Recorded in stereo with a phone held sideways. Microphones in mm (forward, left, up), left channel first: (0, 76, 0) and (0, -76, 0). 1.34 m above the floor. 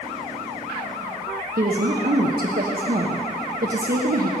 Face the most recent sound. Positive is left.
turn(degrees=-80)